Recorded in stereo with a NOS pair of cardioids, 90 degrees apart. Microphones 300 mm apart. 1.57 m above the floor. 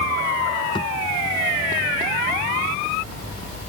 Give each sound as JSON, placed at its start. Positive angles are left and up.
{"t": 0.8, "sound": "a thud", "azimuth_deg": 15}